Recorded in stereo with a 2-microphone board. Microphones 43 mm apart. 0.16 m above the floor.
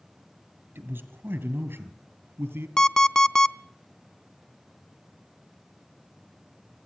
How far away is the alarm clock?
About 0.6 m.